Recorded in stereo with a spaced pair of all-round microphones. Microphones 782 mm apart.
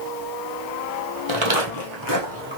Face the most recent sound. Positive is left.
turn(degrees=-10)  # may be behind; listen again after turning